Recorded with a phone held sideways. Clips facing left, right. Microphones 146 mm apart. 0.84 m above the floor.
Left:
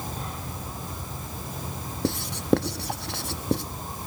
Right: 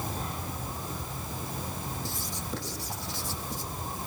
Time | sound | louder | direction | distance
2.0 | writing | left 14 dB | 70° left (ahead or behind) | 1.0 m